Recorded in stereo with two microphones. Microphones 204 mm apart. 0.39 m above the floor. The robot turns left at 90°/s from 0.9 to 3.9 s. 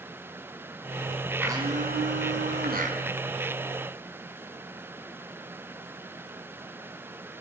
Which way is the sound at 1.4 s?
10° right.